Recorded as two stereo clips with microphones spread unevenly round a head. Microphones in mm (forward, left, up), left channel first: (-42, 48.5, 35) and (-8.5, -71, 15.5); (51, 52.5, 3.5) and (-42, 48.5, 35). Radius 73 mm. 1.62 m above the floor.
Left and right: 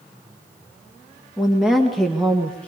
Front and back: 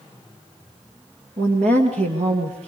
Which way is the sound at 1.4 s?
160° right.